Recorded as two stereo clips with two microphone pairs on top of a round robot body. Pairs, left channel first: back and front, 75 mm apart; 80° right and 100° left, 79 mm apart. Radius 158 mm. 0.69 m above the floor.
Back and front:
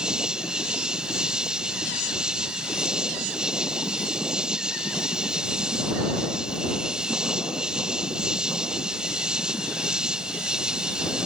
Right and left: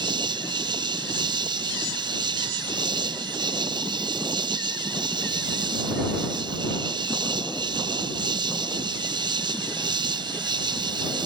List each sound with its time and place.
0.0 s an insect: 80° left